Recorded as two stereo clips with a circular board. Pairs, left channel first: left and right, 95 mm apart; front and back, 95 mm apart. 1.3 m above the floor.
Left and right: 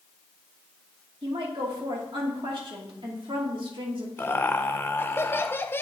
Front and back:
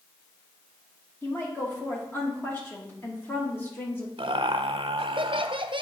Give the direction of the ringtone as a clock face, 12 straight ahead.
I don't hear a ringtone.